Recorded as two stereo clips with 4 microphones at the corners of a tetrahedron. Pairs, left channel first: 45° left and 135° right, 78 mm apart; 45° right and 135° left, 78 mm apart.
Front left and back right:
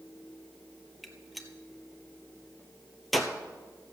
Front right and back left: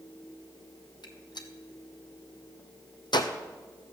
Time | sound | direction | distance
1.0 | a gunshot | 45° right | 1.1 m